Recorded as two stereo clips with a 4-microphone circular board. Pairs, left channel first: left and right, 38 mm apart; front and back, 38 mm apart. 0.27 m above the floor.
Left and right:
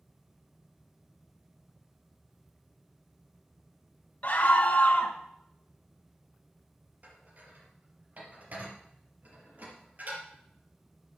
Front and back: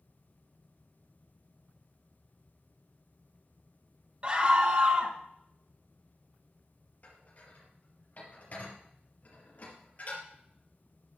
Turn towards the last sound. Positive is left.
turn(degrees=-45)